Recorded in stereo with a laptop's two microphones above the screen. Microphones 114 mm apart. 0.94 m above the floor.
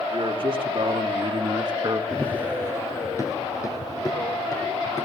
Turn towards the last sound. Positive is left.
turn(degrees=35)  # may be behind; listen again after turning